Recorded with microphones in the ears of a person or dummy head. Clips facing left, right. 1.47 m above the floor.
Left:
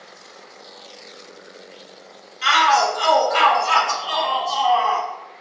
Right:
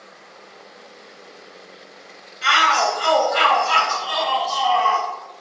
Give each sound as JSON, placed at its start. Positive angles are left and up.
{"t": 2.4, "sound": "a shout", "side_deg": 55, "distance_m": 1.2}